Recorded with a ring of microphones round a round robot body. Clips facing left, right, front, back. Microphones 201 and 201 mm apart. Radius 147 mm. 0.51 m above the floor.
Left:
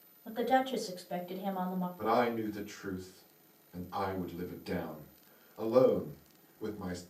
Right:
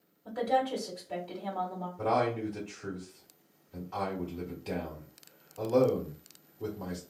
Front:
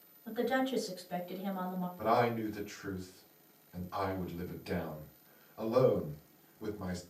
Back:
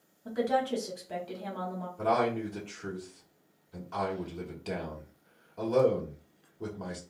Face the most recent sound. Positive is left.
turn(degrees=-155)